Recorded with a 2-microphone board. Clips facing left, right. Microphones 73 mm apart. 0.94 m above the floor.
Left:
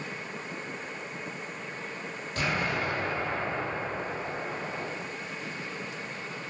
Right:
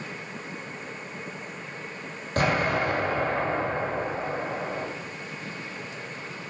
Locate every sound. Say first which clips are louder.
2.4 s an explosion: right 6 dB; 50° right (ahead or behind), 3.5 m